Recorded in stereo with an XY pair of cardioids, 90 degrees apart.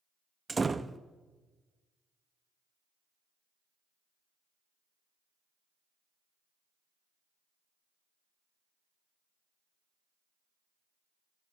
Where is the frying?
No frying in this recording.